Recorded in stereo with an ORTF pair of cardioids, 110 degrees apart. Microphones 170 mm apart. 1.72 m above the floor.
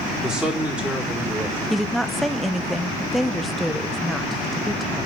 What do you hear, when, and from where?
0.2 s a man speaking: 5° right, 4 m; by 1.6 s 10° right, 5.5 m
1.7 s a woman speaking: straight ahead, 1.1 m